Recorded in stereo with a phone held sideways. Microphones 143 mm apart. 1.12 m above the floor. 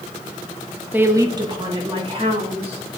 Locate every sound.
0.9 s a woman speaking: 10° right (ahead or behind), 1.0 m; by 3.0 s 45° right (ahead or behind), 3 m